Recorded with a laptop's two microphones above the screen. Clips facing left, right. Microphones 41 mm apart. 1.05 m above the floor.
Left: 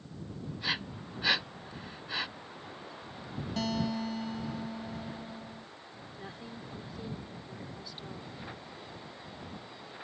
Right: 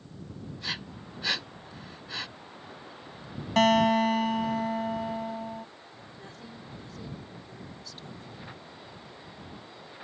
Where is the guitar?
65° right (ahead or behind).